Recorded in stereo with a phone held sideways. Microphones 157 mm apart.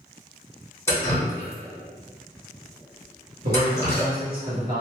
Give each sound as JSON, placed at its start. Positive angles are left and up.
{"t": 0.9, "sound": "dripping", "side_deg": 15, "distance_m": 1.1}
{"t": 3.4, "sound": "a man speaking", "side_deg": -70, "distance_m": 1.3}